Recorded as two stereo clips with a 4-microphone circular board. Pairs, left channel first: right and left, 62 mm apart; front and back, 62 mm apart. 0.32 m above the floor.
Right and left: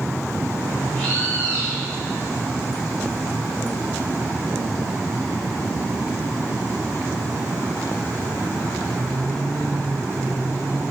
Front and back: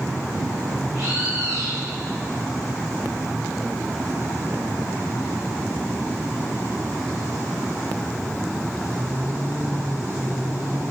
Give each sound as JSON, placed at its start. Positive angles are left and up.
{"t": 0.9, "sound": "a bird", "azimuth_deg": -155, "distance_m": 6.0}